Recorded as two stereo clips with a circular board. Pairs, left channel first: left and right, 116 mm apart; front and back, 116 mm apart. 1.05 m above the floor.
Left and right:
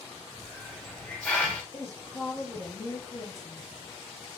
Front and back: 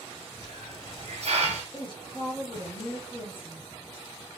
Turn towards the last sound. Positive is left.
turn(degrees=35)